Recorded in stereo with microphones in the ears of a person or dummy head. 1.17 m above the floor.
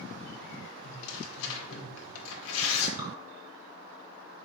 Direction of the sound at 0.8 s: 70° left (ahead or behind).